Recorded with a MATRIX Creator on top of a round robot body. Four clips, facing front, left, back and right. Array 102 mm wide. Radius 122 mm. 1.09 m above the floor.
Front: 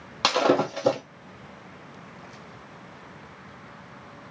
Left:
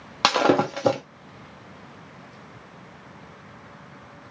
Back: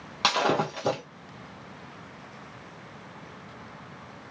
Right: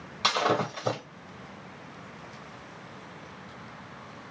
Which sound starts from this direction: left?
Breaking glass, at 0.2 s.